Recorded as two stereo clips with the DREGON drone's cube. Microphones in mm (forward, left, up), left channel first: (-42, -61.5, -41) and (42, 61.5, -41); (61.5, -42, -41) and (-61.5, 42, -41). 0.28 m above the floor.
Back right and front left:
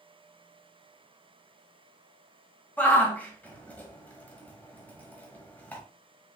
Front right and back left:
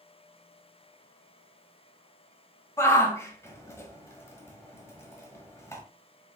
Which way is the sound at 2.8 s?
65° right.